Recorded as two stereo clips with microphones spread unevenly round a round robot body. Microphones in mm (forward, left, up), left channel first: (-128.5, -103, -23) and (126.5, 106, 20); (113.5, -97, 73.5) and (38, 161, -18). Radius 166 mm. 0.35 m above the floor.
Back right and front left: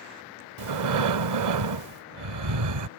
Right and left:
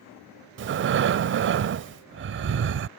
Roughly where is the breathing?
Left.